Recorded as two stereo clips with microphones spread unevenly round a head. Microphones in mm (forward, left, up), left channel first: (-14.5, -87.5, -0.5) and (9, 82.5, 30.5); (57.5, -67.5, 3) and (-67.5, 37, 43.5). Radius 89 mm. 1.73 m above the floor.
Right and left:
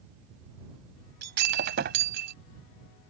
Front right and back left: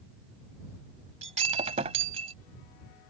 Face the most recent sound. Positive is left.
turn(degrees=95)